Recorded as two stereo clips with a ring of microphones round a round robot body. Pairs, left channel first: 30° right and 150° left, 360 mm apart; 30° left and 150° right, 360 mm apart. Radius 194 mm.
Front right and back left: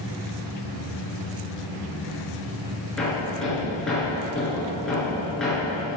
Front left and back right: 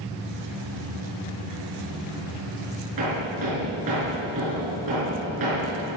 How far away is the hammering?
About 6 m.